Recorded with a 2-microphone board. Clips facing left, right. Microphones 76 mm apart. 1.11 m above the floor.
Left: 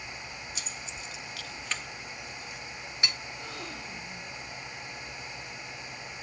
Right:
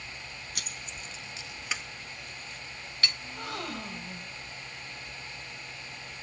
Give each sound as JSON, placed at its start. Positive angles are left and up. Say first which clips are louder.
{"t": 0.6, "sound": "keys jangling", "louder": "left 1 dB", "side_deg": -60, "distance_m": 0.6}
{"t": 3.2, "sound": "a gasp", "louder": "right 3 dB", "side_deg": -70, "distance_m": 1.9}